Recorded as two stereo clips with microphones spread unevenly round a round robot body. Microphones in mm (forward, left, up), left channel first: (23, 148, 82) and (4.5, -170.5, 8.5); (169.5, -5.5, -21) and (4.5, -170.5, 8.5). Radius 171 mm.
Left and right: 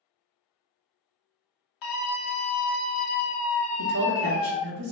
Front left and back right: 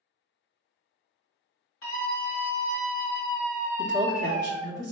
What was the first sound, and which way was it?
A scream, 95° left.